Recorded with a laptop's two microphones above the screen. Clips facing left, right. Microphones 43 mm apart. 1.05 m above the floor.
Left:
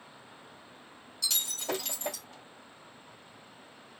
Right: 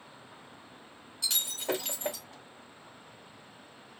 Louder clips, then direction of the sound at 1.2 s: Right 1 dB; 20° right (ahead or behind).